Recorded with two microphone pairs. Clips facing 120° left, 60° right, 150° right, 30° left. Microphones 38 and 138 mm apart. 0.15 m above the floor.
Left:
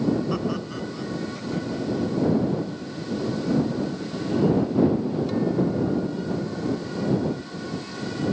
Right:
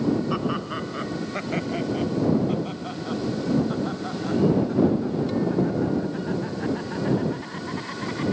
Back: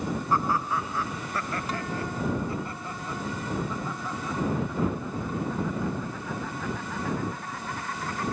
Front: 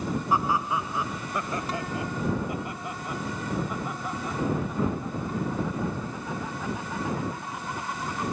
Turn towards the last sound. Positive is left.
turn(degrees=-40)